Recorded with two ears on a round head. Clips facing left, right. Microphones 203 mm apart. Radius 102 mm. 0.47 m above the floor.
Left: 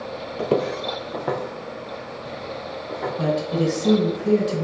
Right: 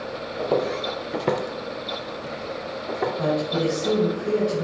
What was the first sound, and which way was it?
Footsteps, 35° left (ahead or behind).